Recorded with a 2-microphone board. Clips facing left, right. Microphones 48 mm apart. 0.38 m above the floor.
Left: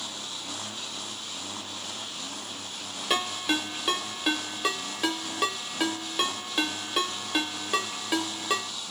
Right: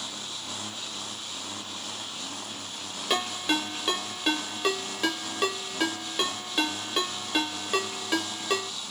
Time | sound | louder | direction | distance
3.1 | a ringtone | even | centre (ahead or behind) | 0.8 m